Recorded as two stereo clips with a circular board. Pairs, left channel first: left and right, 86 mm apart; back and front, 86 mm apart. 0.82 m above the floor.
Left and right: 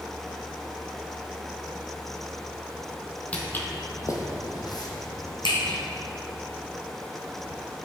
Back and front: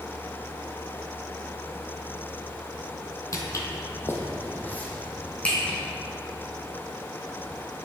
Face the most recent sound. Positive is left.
turn(degrees=105)